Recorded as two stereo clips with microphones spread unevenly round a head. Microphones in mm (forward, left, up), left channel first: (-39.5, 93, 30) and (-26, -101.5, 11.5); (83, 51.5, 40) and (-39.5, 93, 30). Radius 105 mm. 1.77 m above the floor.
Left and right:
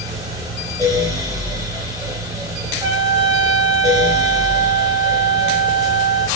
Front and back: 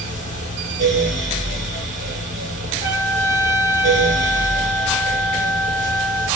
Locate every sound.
0.0 s a fan: 155° right, 3 m
2.8 s a trumpet: 150° right, 2 m